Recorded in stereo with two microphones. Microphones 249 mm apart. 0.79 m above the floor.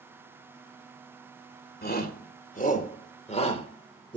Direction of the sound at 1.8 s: 40° left (ahead or behind).